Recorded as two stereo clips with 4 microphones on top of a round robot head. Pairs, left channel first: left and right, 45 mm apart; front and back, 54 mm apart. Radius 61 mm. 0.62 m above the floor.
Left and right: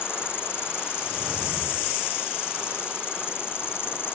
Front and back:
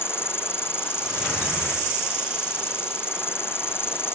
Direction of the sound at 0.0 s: 45° left.